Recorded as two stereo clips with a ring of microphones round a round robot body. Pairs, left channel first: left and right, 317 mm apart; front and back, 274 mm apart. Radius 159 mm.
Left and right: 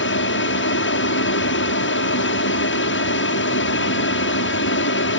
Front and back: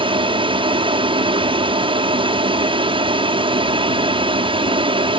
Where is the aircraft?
120° left.